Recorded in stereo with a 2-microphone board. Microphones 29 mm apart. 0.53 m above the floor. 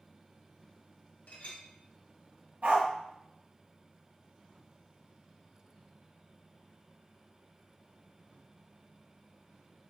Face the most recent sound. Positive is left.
turn(degrees=-70)  # may be behind; listen again after turning